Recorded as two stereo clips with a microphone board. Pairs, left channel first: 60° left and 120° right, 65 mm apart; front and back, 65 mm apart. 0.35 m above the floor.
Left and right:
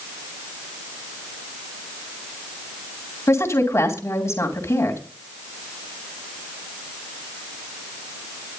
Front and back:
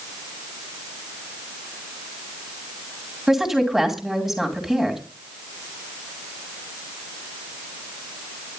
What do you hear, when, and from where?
3.3 s a woman speaking: 100° left, 2.5 m